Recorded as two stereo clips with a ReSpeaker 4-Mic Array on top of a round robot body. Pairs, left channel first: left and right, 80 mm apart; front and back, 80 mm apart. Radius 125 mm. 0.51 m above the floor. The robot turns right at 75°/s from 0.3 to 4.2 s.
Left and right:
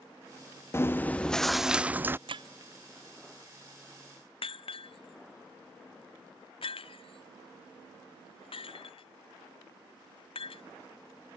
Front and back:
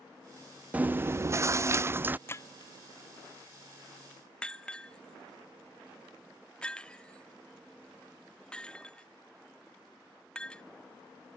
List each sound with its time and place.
0.7 s chewing: 120° left; by 2.2 s 130° right
2.3 s breaking glass: 65° right; by 10.6 s 80° left